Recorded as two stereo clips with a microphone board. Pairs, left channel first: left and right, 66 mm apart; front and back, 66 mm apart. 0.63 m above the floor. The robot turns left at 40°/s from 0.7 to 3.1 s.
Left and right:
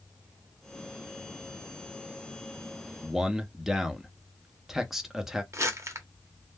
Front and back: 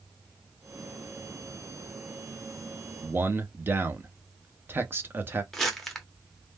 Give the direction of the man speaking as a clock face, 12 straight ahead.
5 o'clock.